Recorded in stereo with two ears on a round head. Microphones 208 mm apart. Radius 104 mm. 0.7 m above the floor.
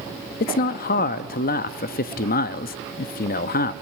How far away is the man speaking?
About 0.6 m.